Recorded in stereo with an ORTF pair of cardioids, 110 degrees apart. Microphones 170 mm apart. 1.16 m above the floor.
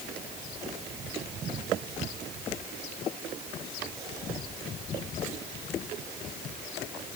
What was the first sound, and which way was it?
Only background noise.